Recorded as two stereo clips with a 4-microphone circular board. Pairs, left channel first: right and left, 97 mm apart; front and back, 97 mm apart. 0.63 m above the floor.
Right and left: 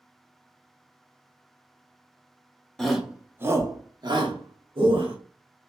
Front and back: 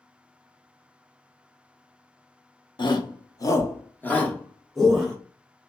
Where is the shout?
5° right, 0.8 m; by 5.2 s 90° left, 1.3 m.